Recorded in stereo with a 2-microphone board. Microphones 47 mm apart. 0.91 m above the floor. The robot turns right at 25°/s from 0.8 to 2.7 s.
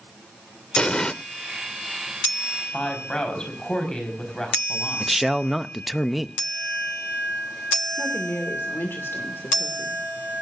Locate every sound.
0.8 s an explosion: 25° left (ahead or behind), 0.6 m; by 1.1 s 20° left (ahead or behind), 0.6 m
2.7 s a woman speaking: 15° left (ahead or behind), 5 m
5.0 s a man speaking: 5° right (ahead or behind), 0.6 m
8.0 s a woman speaking: 65° left (ahead or behind), 2.5 m